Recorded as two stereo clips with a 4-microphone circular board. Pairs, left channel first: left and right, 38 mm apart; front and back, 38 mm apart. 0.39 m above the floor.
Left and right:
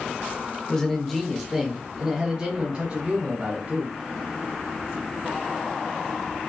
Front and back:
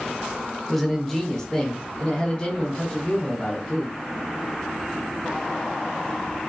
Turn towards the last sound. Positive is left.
turn(degrees=-55)